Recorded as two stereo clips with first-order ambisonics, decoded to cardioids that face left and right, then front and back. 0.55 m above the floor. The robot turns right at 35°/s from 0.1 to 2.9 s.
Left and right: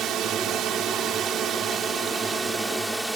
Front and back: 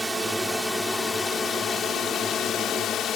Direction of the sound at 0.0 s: 105° right.